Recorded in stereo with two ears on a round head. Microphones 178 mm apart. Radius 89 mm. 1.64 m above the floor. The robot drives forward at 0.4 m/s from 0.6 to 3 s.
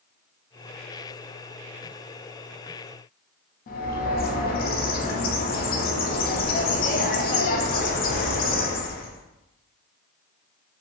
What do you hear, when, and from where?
3.7 s a bird: 45° left (ahead or behind), 0.6 m